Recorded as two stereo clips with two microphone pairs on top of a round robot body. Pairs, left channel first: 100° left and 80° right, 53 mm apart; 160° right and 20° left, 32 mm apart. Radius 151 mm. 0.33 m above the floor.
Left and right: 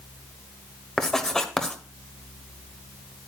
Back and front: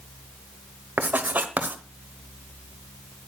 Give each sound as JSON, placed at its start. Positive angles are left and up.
{"t": 1.0, "sound": "writing", "azimuth_deg": 15, "distance_m": 1.1}